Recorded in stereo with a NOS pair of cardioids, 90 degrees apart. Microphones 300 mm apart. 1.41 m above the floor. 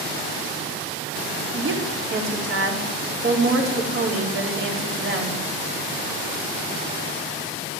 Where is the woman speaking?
40° right, 4 m.